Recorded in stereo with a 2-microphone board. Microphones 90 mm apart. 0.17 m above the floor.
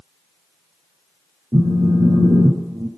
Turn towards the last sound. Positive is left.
turn(degrees=-45)  # may be behind; listen again after turning